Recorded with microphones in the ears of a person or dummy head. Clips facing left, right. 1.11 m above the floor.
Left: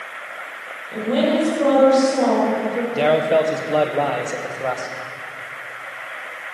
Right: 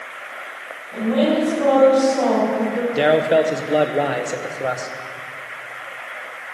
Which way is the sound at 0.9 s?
45° left (ahead or behind).